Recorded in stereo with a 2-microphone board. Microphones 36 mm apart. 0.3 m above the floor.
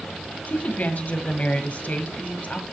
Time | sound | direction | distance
0.5 | a woman speaking | 45° left (ahead or behind) | 1.6 m